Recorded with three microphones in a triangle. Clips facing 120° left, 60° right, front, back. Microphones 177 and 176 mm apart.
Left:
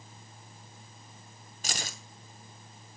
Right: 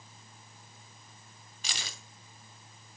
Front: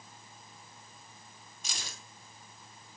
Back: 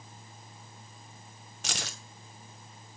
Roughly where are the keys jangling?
Behind.